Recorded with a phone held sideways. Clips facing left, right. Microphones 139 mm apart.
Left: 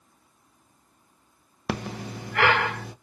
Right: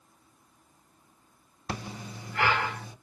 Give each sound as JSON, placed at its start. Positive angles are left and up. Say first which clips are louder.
{"t": 1.7, "sound": "breathing", "louder": "left 6 dB", "side_deg": 75, "distance_m": 0.6}